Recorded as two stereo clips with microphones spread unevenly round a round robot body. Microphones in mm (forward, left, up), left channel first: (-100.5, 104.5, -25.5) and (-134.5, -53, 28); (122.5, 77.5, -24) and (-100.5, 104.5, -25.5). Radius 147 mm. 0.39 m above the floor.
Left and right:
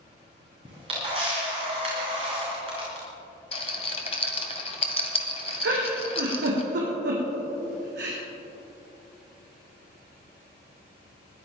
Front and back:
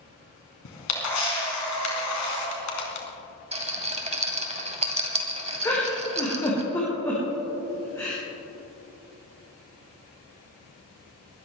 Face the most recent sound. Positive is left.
turn(degrees=-90)